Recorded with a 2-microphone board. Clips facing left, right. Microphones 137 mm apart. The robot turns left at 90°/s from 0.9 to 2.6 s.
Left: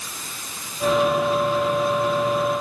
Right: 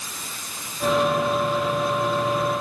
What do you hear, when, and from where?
Only background noise.